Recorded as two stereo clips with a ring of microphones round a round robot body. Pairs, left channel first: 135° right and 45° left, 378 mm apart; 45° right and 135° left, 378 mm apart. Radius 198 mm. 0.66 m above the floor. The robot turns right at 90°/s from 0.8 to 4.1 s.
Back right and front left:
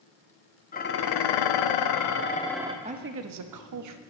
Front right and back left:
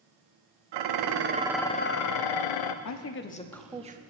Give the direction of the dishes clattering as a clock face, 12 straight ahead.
7 o'clock.